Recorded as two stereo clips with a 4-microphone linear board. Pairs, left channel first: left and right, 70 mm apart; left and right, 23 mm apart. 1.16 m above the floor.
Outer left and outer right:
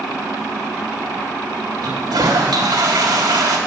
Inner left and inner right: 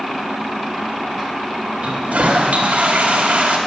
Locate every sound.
1.8 s a toilet flushing: 85° right, 1.7 m